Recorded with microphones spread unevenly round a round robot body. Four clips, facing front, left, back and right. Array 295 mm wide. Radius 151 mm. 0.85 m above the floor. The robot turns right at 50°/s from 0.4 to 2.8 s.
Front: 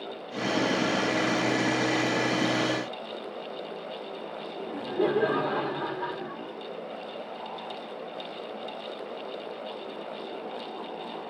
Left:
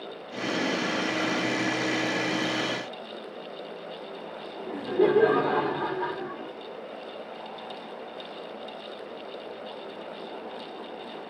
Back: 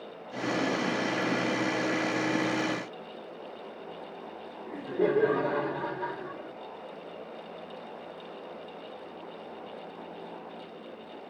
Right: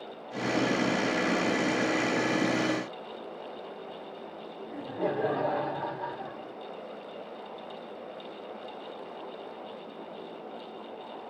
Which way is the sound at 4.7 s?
70° left.